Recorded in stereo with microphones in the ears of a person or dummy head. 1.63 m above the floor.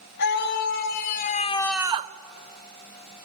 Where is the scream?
60° left (ahead or behind), 2 m; by 2.1 s 40° right (ahead or behind), 0.7 m.